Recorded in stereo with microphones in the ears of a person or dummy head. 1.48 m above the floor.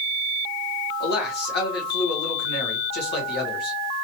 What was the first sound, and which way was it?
A man speaking, 55° left (ahead or behind).